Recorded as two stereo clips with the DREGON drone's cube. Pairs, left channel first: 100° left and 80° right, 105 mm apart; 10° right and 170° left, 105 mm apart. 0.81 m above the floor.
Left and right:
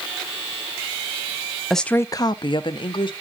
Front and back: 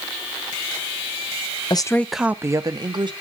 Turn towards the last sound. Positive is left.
turn(degrees=130)